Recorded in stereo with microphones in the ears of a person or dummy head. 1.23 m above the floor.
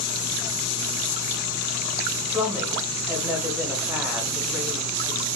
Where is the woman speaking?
Centre (ahead or behind), 1.0 m.